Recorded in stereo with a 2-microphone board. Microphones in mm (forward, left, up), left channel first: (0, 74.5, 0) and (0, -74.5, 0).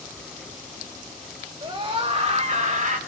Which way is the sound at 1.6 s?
35° right (ahead or behind).